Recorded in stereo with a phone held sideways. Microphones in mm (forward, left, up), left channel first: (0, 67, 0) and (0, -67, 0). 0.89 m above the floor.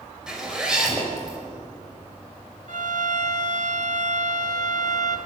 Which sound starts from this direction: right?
A violin, at 2.7 s.